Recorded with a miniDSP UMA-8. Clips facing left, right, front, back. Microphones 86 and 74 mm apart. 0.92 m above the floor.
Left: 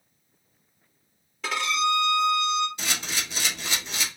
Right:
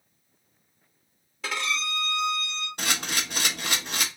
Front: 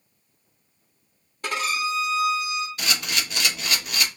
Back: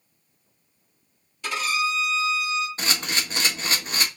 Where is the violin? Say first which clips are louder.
Left 6 dB, even; 5° right, 1.2 m.